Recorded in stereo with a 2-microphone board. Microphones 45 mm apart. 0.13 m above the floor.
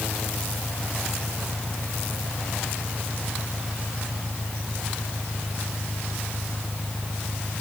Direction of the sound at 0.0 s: 25° left (ahead or behind).